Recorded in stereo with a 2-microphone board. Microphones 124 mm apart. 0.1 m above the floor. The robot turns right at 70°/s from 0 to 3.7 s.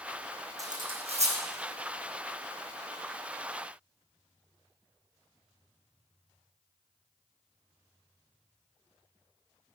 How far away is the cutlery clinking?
About 3 m.